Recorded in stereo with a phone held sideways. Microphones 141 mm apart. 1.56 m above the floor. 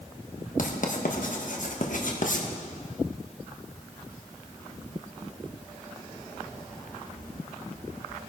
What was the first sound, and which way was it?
Writing, 65° left (ahead or behind).